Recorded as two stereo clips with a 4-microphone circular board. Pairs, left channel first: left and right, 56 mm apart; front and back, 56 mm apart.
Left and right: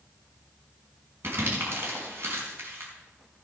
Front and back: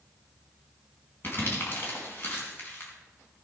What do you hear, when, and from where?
1.2 s crumpling: 50° right, 4.5 m